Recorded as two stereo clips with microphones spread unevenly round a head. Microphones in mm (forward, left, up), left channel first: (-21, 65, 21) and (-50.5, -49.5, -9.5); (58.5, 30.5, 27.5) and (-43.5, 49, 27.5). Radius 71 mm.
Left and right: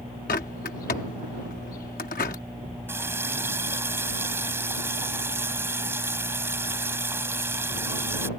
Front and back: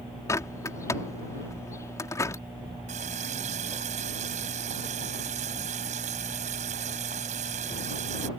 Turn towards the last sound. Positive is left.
turn(degrees=-175)